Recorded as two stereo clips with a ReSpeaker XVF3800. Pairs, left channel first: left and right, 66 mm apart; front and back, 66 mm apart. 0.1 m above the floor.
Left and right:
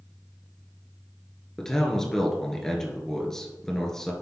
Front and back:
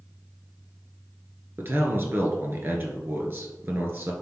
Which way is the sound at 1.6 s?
165° left.